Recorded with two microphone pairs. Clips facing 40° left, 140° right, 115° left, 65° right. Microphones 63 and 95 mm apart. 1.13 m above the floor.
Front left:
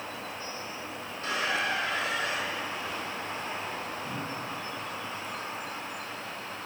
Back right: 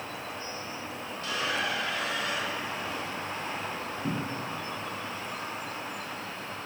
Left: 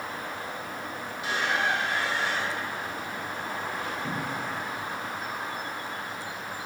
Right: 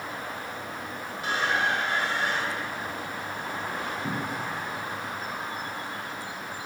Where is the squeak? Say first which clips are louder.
Front left 2 dB, right 2 dB; 20° right, 5 m.